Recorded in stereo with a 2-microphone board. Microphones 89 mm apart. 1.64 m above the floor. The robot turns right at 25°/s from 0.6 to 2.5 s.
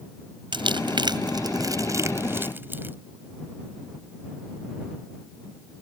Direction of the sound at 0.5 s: 70° right (ahead or behind).